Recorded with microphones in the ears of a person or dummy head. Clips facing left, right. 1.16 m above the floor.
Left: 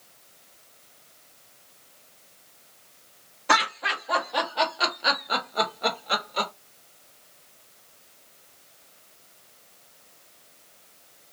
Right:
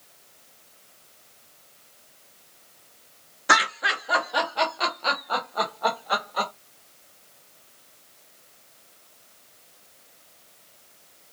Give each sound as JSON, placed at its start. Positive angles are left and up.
{"t": 3.5, "sound": "laughter", "side_deg": -10, "distance_m": 1.0}